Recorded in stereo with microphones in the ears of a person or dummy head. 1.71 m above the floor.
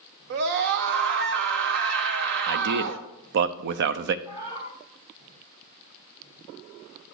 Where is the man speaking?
65° right (ahead or behind), 0.6 m.